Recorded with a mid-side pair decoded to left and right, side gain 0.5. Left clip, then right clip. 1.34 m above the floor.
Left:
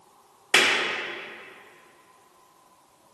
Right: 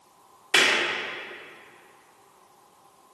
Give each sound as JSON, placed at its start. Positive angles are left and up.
{"t": 0.5, "sound": "a clap", "azimuth_deg": 45, "distance_m": 1.8}